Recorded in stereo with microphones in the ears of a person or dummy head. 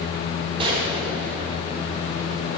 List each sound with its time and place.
0.6 s a gunshot: 35° right (ahead or behind), 4 m